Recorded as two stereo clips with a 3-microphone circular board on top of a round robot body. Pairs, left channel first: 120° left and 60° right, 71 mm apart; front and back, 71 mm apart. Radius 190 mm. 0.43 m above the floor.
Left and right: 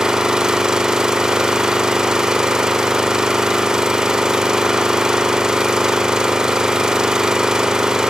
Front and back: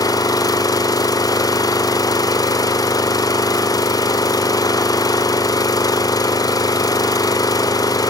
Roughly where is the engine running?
Ahead.